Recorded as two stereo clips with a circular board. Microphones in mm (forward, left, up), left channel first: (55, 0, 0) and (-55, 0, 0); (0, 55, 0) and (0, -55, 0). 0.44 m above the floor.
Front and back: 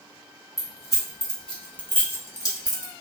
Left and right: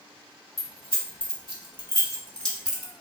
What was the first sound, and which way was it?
Keys jangling, 95° left.